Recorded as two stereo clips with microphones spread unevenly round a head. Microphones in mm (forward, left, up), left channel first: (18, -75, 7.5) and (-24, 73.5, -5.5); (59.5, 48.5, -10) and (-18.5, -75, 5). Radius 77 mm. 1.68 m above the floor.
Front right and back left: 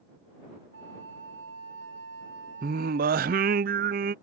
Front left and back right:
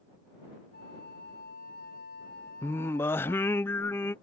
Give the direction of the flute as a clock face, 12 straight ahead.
9 o'clock.